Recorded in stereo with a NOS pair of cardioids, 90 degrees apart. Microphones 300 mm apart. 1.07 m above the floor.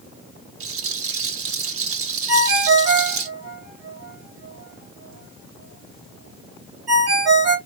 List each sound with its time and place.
0.6 s a rattle: 55° right, 1.1 m
2.3 s a ringtone: 60° right, 1.6 m